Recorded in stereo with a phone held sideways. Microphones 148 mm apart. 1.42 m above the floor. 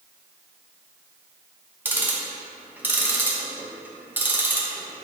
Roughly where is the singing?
I don't hear singing.